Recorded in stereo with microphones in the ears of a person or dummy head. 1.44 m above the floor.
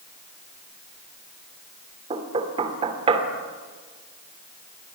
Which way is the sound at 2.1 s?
30° right (ahead or behind).